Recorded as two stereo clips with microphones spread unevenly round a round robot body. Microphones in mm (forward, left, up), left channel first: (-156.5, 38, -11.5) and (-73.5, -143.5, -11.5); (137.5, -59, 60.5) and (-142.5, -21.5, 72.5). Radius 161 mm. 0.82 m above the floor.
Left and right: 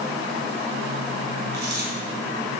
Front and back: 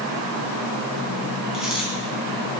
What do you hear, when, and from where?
1.5 s a dropped coin: 100° right, 4 m